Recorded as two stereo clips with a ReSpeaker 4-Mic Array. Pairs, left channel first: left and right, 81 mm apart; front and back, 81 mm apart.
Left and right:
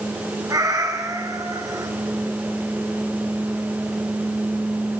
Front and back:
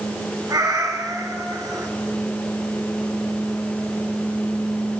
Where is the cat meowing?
135° right, 1.9 m.